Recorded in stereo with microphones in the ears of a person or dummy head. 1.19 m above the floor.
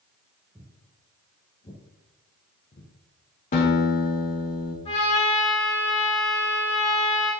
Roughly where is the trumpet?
Left.